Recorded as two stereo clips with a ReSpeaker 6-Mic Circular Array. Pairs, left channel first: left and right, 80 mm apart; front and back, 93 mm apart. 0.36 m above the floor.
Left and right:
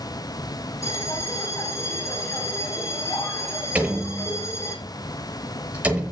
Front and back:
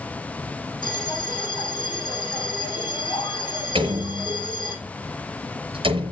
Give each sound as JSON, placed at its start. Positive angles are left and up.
{"t": 0.8, "sound": "a bell", "azimuth_deg": 40, "distance_m": 7.5}
{"t": 3.8, "sound": "a door slam", "azimuth_deg": -160, "distance_m": 6.0}